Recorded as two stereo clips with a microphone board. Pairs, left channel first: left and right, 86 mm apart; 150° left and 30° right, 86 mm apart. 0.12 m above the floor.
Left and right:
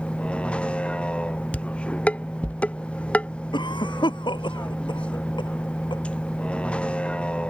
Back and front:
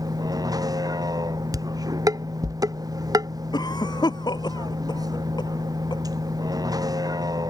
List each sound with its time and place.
0.0 s a vehicle: 15° left
1.5 s dishes clattering: 15° left
3.5 s a cough: 115° left